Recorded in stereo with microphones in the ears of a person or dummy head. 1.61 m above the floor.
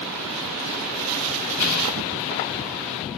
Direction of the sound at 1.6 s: 50° left (ahead or behind).